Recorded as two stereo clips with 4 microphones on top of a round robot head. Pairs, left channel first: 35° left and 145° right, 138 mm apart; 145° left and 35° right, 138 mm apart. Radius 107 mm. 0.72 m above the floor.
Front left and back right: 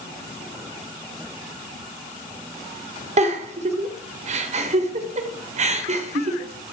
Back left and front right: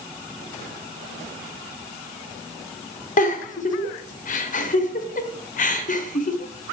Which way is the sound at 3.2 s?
175° left.